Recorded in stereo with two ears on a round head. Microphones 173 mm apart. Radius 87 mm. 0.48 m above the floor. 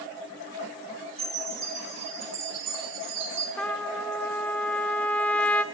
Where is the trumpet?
5° left (ahead or behind), 0.8 m.